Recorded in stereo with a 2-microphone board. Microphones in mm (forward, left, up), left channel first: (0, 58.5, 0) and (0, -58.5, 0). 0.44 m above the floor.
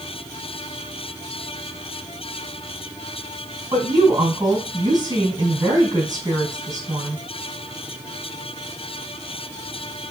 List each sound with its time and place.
3.7 s a woman speaking: 35° right (ahead or behind), 3.5 m